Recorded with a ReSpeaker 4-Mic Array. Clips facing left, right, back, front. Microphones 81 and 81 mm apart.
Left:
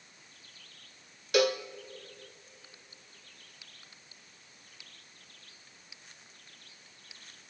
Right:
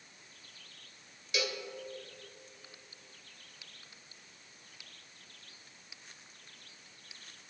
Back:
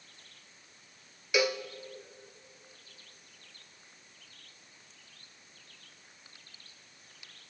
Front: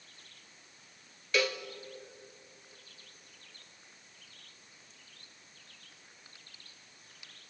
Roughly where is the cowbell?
Left.